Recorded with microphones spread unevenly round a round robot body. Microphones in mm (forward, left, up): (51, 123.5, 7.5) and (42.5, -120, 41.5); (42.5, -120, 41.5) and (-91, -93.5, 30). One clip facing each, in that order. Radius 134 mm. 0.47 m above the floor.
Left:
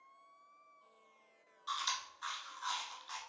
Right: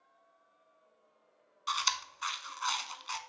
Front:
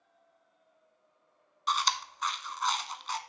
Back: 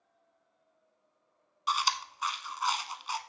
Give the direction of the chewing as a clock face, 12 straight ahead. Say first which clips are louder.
Right 5 dB, front 1 dB; 4 o'clock.